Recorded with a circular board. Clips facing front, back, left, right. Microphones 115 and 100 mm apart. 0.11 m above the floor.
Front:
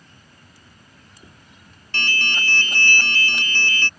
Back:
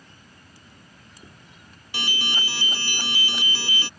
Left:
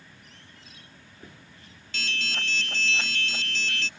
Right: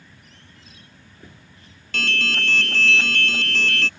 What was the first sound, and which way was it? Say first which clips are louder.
An alarm: front 3 dB, right 8 dB; 100° right.